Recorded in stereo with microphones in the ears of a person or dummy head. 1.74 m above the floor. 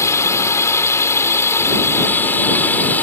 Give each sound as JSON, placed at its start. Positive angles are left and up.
{"t": 0.0, "sound": "a drone", "side_deg": 20}